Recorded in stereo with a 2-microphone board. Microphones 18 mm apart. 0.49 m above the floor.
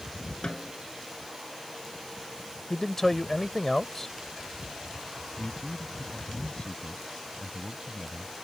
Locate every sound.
0.4 s a snare drum: 55° left (ahead or behind)
2.7 s a man speaking: 15° left (ahead or behind)
5.4 s a man speaking: 65° left (ahead or behind)